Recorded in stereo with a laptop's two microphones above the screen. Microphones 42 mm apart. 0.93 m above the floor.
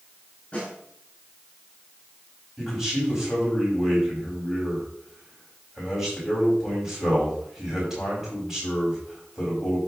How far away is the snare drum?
About 6 m.